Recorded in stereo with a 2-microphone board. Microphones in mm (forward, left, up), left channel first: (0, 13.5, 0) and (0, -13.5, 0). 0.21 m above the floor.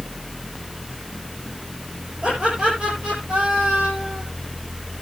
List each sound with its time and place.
2.2 s laughter: 55° right (ahead or behind), 5.5 m; by 4.2 s 70° right (ahead or behind), 5.5 m